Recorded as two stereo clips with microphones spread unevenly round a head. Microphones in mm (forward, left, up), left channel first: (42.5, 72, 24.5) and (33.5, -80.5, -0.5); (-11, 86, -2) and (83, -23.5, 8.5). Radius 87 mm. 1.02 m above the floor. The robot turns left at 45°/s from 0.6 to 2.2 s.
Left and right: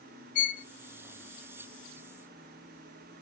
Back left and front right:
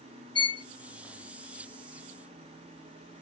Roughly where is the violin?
Left.